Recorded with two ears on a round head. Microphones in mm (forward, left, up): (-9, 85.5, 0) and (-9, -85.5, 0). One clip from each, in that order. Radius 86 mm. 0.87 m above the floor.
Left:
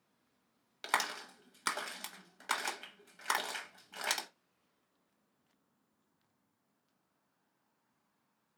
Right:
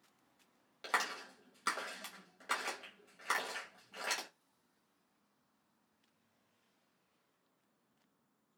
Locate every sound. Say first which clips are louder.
0.8 s a clap: left 2 dB; 30° left (ahead or behind), 0.8 m